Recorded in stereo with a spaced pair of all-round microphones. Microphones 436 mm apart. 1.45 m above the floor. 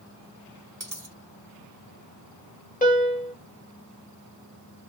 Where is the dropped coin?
45° right (ahead or behind), 1.4 m.